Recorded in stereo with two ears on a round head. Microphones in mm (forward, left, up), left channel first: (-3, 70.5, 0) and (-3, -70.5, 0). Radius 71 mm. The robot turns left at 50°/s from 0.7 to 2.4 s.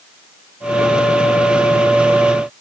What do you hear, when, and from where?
Only background noise.